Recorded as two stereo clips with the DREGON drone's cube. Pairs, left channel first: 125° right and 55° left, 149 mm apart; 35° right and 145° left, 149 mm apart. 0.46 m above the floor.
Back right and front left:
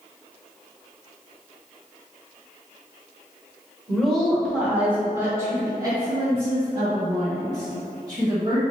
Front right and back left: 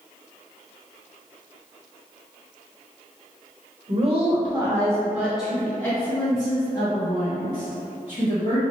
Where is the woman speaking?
150° left, 1.0 m; by 8.6 s straight ahead, 1.8 m.